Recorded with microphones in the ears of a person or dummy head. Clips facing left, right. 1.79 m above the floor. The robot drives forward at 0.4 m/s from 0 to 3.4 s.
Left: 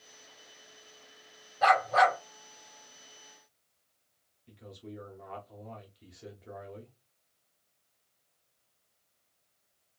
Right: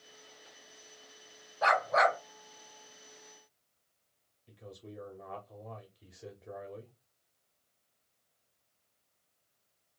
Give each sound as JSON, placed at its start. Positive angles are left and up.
{"t": 1.6, "sound": "a dog barking", "side_deg": 30, "distance_m": 3.0}
{"t": 4.5, "sound": "a man speaking", "side_deg": 0, "distance_m": 0.8}